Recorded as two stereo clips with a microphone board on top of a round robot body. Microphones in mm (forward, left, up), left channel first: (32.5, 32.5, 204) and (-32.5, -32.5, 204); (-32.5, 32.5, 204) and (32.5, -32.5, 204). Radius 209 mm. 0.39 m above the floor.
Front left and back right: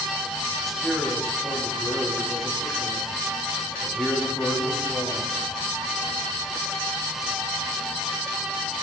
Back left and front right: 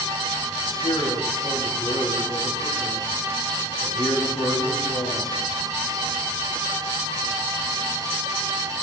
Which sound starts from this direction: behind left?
A man speaking, at 0.7 s.